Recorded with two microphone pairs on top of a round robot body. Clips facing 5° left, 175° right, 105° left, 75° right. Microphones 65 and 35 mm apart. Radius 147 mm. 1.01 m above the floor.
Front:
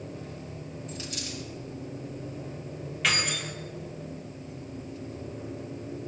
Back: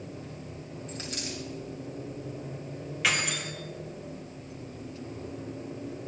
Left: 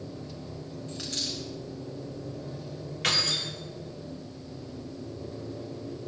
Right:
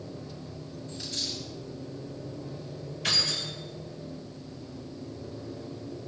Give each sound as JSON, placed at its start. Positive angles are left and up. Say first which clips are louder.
{"t": 0.9, "sound": "a dropped coin", "louder": "back 2 dB, left 1 dB", "azimuth_deg": 135, "distance_m": 7.5}
{"t": 3.0, "sound": "keys jangling", "louder": "even, left 1 dB", "azimuth_deg": 100, "distance_m": 3.0}